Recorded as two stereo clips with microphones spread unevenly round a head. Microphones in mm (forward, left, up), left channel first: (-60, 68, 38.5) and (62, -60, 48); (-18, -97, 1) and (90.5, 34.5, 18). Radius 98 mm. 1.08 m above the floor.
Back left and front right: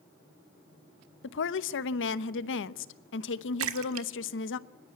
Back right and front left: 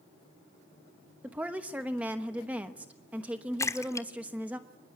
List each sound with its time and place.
1.2 s a woman speaking: 135° left, 1.0 m
3.6 s a splash: 55° right, 1.4 m